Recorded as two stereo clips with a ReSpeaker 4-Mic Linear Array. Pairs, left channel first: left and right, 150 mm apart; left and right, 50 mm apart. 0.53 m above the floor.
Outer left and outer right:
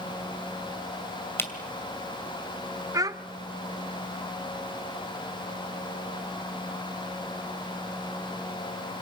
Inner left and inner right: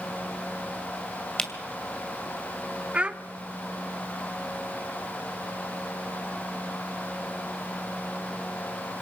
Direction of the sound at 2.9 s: 25° right (ahead or behind).